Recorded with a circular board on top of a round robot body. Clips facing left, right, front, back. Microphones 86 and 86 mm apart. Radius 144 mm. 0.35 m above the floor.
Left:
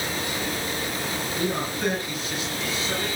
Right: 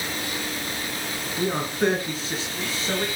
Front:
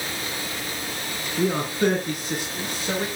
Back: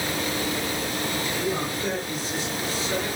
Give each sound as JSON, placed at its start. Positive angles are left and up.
{"t": 1.4, "sound": "a man speaking", "azimuth_deg": -30, "distance_m": 5.5}